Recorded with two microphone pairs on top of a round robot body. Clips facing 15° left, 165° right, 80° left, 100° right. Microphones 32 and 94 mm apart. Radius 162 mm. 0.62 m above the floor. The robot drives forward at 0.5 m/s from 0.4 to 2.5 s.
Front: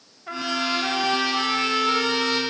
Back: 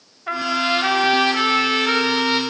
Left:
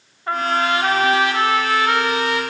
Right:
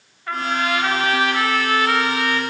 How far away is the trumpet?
About 2.5 m.